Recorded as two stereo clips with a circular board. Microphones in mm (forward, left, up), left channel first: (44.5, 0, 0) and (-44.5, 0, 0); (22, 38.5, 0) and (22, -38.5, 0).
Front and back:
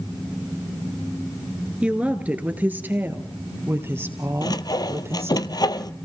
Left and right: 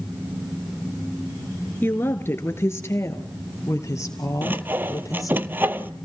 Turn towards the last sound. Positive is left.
turn(degrees=-30)